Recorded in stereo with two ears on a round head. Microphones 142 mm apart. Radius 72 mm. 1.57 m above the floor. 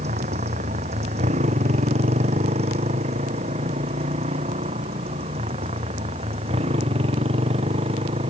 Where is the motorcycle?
40° right (ahead or behind); by 8.3 s 35° right (ahead or behind).